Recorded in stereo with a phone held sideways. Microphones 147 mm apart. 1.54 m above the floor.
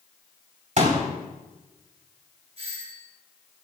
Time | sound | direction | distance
0.8 | a pop | 55° right (ahead or behind) | 3.5 m
2.6 | a doorbell | 45° right (ahead or behind) | 10 m